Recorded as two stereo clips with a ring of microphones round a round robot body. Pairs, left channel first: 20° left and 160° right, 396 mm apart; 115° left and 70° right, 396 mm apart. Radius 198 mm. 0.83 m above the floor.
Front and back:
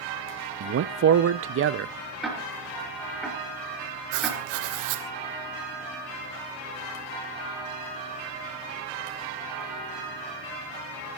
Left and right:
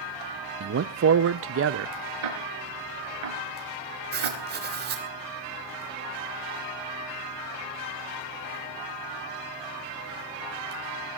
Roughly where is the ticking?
Ahead right.